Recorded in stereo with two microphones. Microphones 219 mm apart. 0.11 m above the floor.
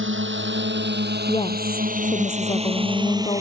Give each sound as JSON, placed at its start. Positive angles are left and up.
{"t": 0.0, "sound": "a drone", "side_deg": -60}
{"t": 1.3, "sound": "a woman speaking", "side_deg": 25}